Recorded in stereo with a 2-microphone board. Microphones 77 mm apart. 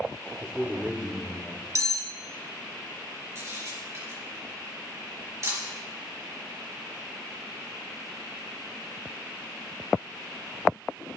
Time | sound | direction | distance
0.4 | a man speaking | 30° right (ahead or behind) | 1.2 m
1.8 | cutlery clinking | 40° right (ahead or behind) | 0.6 m
3.4 | a camera shutter | 40° right (ahead or behind) | 5 m